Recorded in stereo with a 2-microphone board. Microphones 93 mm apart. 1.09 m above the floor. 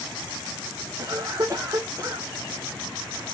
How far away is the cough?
About 0.6 m.